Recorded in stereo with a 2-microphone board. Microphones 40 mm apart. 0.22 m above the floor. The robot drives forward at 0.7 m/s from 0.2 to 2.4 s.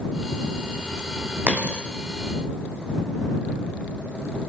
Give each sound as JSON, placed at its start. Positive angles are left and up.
{"t": 1.5, "sound": "a dropped coin", "side_deg": -45, "distance_m": 2.0}